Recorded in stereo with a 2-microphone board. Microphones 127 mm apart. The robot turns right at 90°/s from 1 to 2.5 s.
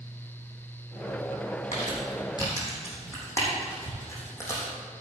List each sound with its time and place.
1.7 s crumpling: 80° left, 4 m; by 4.7 s 25° left (ahead or behind), 4 m